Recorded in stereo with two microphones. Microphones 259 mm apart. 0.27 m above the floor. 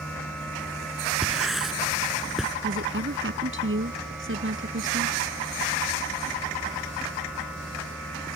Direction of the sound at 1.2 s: Centre (ahead or behind).